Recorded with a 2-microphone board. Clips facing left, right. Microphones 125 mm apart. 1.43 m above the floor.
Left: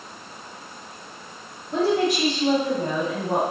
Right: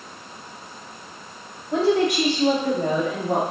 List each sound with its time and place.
1.7 s a woman speaking: 90° right, 5 m; by 3.4 s 85° right, 3.5 m